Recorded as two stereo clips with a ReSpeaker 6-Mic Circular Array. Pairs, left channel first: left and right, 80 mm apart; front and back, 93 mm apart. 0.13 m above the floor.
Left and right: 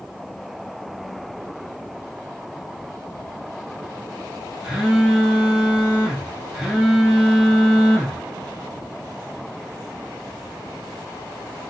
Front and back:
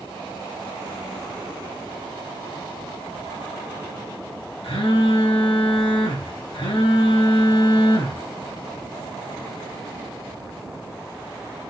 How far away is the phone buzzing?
About 6 m.